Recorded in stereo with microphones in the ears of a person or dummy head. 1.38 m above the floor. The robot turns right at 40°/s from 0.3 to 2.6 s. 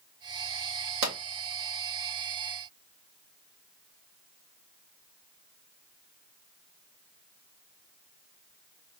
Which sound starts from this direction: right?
A pop, at 1.0 s.